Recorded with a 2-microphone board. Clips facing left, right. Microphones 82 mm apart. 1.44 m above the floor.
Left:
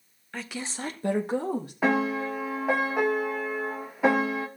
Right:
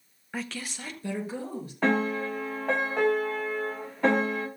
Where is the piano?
10° left (ahead or behind), 1.0 m.